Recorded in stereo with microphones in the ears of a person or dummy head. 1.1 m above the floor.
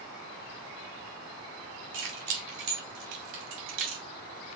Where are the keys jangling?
85° right, 2.5 m; by 4.0 s 80° right, 1.3 m.